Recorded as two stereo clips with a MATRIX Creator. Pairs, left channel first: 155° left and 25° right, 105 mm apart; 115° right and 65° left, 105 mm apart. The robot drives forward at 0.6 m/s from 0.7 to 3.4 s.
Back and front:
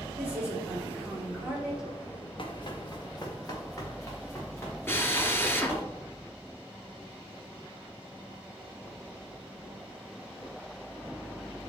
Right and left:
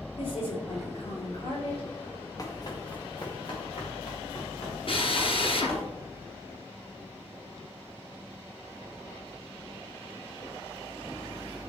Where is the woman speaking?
100° right, 4.5 m; by 1.8 s 105° right, 5 m.